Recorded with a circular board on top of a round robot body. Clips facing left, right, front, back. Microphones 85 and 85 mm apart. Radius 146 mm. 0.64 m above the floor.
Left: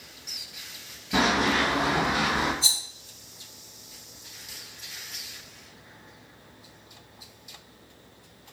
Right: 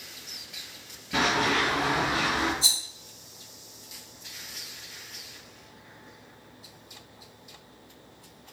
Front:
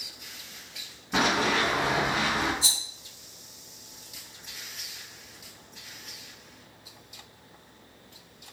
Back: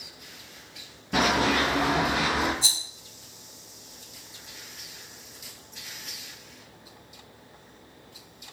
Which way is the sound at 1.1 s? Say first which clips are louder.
Left 2 dB, back 2 dB; 160° left.